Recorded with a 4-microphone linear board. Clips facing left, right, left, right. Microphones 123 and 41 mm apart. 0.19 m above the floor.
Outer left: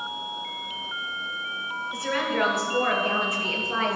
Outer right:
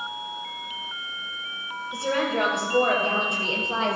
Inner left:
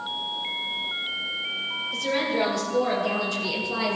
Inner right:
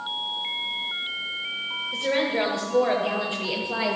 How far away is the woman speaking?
About 5 m.